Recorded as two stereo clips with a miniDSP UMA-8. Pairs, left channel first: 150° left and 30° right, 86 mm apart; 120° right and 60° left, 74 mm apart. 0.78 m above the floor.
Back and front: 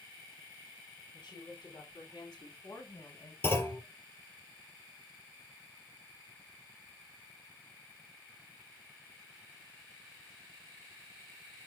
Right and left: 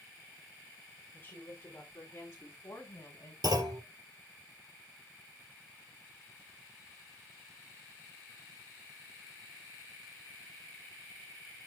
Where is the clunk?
85° left, 3.5 m.